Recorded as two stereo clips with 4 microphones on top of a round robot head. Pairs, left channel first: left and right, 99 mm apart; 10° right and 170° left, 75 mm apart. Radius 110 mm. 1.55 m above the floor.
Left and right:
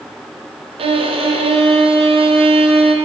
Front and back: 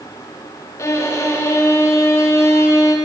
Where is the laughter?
No laughter in this recording.